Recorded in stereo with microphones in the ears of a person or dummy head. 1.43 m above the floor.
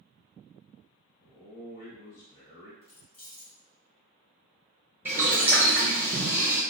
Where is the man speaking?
45° left (ahead or behind), 0.8 m.